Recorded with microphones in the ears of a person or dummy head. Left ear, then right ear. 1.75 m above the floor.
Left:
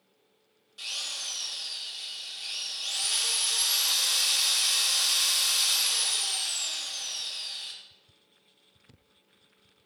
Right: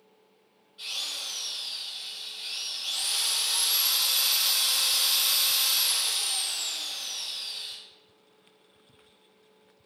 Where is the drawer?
I don't hear a drawer.